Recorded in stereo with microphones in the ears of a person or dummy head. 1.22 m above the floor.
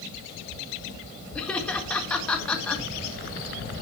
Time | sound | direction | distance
1.4 | laughter | 5° left (ahead or behind) | 1.5 m